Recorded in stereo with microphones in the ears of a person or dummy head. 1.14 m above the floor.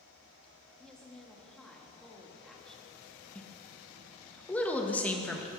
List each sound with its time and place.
0.8 s a woman speaking: 5° left (ahead or behind), 1.6 m
3.4 s a woman speaking: 10° left (ahead or behind), 1.5 m